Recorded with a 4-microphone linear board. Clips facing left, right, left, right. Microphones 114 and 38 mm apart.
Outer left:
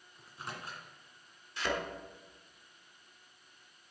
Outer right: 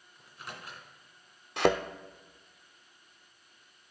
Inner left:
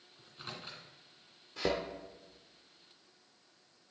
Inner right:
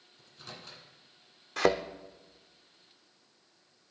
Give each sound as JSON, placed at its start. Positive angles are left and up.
{"t": 0.2, "sound": "a microwave", "side_deg": 30, "distance_m": 2.0}
{"t": 1.6, "sound": "a thud", "side_deg": -75, "distance_m": 0.6}